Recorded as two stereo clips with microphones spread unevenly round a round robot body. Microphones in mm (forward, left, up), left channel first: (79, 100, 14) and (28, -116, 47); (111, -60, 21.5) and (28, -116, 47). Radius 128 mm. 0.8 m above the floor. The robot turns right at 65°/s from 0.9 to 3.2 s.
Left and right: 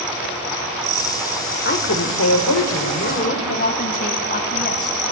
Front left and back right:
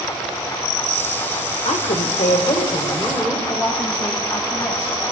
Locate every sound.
1.6 s a woman speaking: 35° left, 2.5 m; by 3.4 s 135° left, 2.5 m
3.5 s a woman speaking: 125° left, 2.0 m